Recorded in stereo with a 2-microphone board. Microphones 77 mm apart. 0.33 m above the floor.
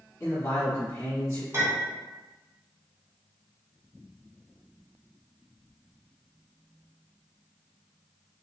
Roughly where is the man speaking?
Left.